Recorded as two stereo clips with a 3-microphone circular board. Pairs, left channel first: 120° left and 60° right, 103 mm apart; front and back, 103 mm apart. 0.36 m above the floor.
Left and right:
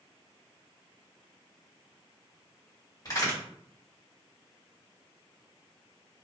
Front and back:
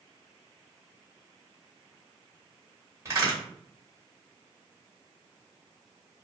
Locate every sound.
3.0 s a crack: 140° left, 1.6 m